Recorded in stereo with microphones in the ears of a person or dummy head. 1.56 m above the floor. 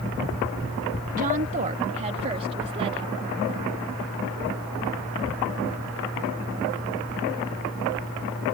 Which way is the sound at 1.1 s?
40° right (ahead or behind).